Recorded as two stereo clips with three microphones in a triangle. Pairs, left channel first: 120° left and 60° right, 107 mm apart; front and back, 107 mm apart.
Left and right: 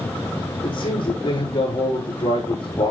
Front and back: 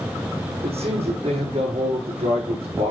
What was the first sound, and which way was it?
A man speaking, 160° left.